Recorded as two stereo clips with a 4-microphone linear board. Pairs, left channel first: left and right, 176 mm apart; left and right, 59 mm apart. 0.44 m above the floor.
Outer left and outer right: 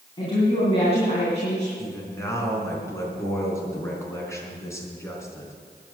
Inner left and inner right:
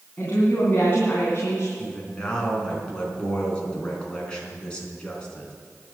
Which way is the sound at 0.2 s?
30° left (ahead or behind).